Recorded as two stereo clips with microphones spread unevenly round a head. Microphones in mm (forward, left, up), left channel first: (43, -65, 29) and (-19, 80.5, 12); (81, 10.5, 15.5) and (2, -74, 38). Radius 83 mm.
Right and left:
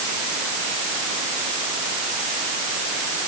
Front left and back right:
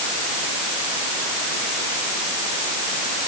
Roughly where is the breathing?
I don't hear breathing.